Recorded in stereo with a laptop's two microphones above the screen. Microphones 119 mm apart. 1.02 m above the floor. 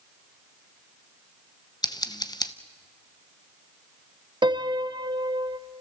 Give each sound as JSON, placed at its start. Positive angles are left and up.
{"t": 1.8, "sound": "scissors", "side_deg": 35, "distance_m": 0.6}
{"t": 4.4, "sound": "a piano", "side_deg": -40, "distance_m": 0.6}